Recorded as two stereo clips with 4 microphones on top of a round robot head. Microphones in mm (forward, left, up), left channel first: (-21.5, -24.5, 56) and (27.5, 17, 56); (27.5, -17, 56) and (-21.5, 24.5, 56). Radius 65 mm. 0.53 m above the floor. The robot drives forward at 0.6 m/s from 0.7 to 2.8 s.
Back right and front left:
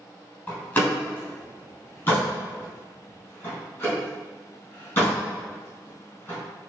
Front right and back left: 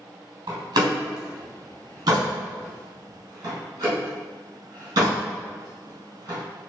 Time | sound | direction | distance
0.5 | a door slam | 160° left | 3.5 m